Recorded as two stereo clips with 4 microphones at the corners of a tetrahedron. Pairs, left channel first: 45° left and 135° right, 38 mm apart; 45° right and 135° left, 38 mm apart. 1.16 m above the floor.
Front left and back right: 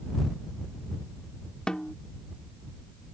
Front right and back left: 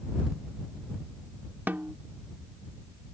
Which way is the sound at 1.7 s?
110° left.